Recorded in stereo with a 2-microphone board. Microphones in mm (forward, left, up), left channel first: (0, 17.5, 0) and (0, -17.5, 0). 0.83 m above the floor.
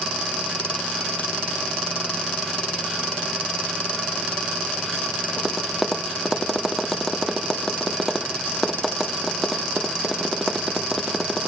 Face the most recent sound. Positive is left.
turn(degrees=0)  # may be behind; listen again after turning